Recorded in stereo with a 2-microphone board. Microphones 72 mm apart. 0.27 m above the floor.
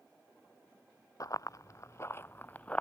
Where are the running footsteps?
55° left (ahead or behind); by 2.8 s 15° left (ahead or behind).